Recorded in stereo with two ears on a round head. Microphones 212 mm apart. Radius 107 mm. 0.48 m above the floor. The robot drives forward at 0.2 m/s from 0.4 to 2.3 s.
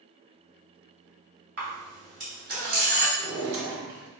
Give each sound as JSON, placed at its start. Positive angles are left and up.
{"t": 1.6, "sound": "a camera shutter", "side_deg": -55, "distance_m": 1.8}
{"t": 3.2, "sound": "a drawer", "side_deg": -75, "distance_m": 1.1}